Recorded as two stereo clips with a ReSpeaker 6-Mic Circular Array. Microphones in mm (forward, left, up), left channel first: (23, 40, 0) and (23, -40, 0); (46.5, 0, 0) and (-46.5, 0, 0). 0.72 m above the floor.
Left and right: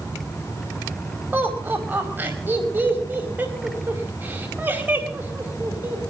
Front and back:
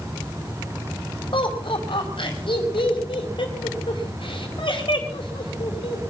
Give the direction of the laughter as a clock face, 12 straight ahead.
1 o'clock.